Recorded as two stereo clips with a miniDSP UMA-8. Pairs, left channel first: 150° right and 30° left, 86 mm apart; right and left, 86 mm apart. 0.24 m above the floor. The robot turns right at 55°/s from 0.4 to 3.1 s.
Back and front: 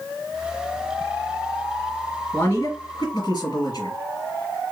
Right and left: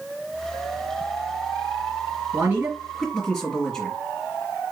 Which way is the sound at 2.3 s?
150° left.